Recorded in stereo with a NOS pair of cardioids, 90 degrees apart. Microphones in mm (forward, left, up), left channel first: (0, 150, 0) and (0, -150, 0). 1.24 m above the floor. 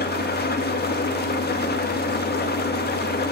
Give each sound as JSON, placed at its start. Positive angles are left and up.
{"t": 0.0, "sound": "an engine running", "azimuth_deg": 35, "distance_m": 1.8}